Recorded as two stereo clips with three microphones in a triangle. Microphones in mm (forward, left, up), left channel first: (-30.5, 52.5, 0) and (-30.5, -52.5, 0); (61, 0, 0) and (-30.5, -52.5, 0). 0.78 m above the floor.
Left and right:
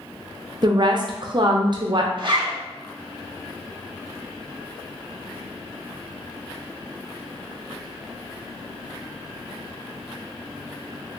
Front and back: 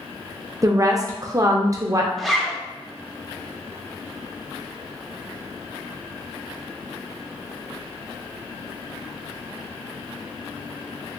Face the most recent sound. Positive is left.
turn(degrees=-55)